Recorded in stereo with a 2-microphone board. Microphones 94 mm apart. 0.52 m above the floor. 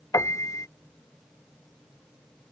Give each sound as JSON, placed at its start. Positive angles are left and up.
{"t": 0.1, "sound": "a piano", "side_deg": 35}